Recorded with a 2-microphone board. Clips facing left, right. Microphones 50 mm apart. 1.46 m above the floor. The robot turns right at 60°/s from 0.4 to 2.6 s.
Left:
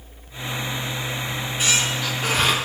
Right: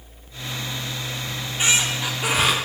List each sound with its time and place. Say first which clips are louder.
1.3 s a squeak: right 2 dB; 80° right, 0.6 m; by 2.5 s 5° right, 0.6 m